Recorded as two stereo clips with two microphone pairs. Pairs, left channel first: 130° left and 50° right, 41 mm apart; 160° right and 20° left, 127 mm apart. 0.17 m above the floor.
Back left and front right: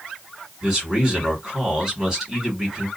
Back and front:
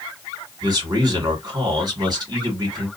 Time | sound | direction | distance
0.6 | a man speaking | 10° left | 1.9 m